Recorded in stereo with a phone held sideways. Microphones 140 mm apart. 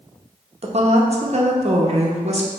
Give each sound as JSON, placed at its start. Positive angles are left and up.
{"t": 0.6, "sound": "a woman speaking", "side_deg": -50, "distance_m": 0.7}